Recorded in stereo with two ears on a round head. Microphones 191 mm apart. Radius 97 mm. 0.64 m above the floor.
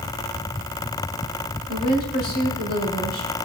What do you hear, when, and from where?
1.7 s a woman speaking: 50° left (ahead or behind), 4 m